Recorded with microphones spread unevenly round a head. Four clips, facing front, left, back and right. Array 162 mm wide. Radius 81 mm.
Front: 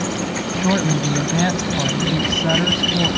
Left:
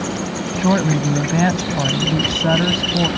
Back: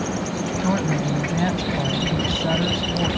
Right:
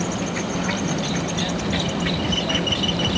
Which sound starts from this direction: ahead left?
A woman speaking, at 0.6 s.